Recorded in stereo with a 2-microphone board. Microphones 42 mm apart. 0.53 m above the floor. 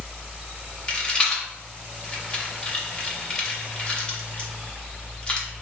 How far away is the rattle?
About 0.7 m.